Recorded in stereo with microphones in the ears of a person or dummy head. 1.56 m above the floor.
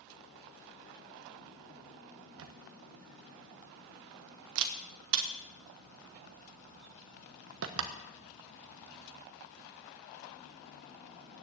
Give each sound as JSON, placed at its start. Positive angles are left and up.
{"t": 2.4, "sound": "a camera shutter", "side_deg": -75, "distance_m": 1.1}